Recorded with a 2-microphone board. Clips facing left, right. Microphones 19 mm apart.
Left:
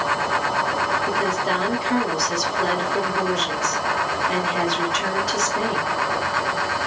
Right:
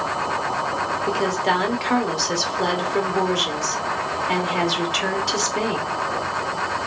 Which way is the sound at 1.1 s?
50° right (ahead or behind).